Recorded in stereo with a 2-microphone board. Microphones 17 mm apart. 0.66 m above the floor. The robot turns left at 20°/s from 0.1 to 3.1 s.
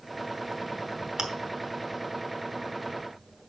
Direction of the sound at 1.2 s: 60° right (ahead or behind).